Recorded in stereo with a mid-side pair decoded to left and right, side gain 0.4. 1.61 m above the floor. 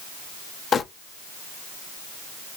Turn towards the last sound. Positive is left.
turn(degrees=60)